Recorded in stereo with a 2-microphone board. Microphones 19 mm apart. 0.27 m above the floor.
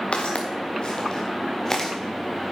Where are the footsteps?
70° left (ahead or behind), 2 m; by 1.9 s 15° left (ahead or behind), 2.5 m.